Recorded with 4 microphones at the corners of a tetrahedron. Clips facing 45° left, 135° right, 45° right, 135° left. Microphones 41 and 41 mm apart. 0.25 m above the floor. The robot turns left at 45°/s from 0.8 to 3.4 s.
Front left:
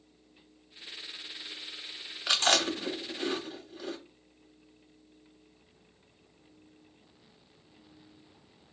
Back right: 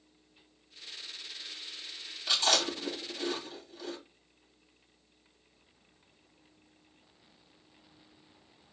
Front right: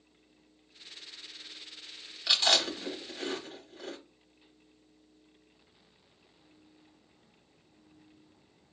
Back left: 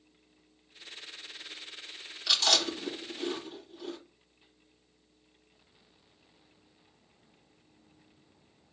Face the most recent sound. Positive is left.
turn(degrees=-15)